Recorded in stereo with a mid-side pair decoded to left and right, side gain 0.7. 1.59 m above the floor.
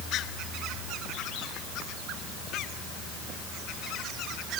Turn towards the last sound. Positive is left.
No sound to turn to.